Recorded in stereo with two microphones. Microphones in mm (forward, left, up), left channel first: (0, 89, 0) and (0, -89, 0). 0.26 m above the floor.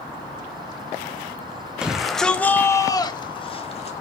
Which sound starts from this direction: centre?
A shout, at 1.8 s.